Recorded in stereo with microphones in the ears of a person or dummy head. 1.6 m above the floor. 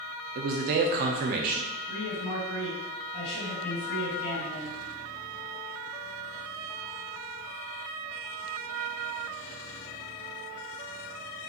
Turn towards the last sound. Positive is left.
turn(degrees=30)  # may be behind; listen again after turning